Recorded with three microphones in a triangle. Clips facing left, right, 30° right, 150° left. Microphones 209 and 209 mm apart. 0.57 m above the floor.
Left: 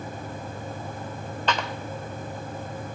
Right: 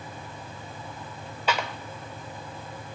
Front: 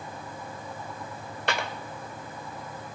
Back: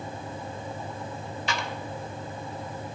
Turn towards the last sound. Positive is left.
turn(degrees=-10)